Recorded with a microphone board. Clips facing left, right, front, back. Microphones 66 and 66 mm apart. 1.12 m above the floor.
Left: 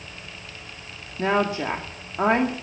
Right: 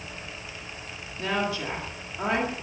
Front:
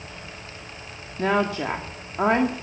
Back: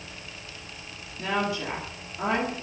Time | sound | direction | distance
1.2 | a woman speaking | 40° left | 1.8 m